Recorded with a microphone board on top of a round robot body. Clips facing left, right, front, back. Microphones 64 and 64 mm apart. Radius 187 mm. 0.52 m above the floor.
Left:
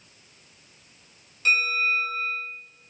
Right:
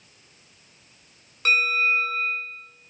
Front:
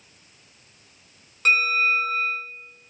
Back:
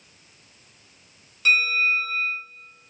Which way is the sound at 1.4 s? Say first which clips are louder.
Right 2 dB, even; 50° right.